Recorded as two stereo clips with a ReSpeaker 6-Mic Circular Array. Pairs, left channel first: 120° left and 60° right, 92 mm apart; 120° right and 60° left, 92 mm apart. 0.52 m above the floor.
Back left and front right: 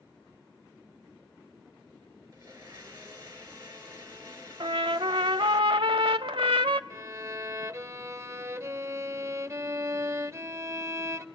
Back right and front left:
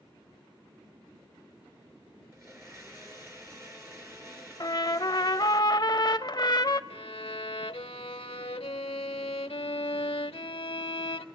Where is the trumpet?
80° right, 0.7 m.